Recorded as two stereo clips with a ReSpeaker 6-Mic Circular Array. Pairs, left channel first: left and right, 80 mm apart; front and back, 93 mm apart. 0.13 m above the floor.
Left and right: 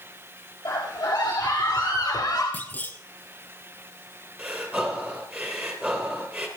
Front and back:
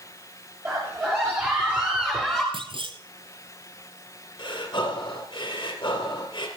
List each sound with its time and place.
0.7 s a scream: 125° left, 3.5 m; by 2.4 s 90° left, 2 m
2.5 s a clunk: 160° left, 0.7 m
4.4 s breathing: 20° right, 2.5 m